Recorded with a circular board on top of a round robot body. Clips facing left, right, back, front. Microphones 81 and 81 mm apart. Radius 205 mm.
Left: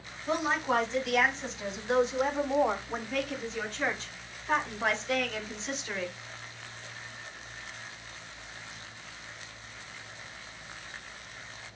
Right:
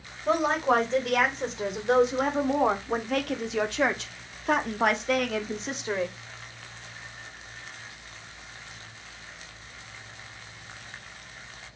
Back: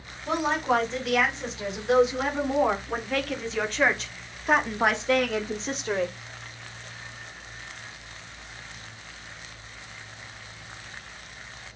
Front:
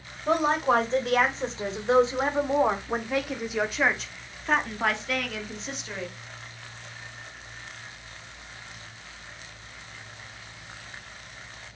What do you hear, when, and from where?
0.3 s a woman speaking: 45° right, 3.5 m; by 6.2 s 140° right, 1.8 m